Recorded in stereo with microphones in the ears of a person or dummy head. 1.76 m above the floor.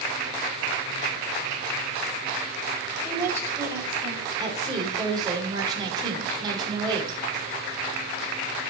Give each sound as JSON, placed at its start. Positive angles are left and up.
{"t": 3.0, "sound": "a woman speaking", "side_deg": -15, "distance_m": 6.5}
{"t": 4.4, "sound": "a woman speaking", "side_deg": -25, "distance_m": 6.0}